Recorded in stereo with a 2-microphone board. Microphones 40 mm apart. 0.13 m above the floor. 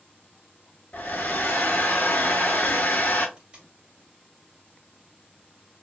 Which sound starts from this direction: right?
Tape being pulled, at 3.4 s.